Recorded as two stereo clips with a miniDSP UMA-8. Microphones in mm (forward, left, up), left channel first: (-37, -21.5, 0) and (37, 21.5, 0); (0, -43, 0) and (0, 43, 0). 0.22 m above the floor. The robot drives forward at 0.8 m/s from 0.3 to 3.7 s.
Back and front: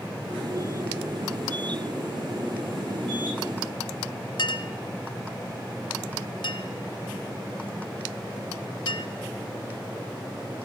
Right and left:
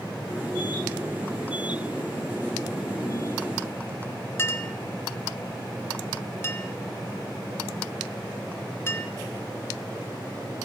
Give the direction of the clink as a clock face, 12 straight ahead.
5 o'clock.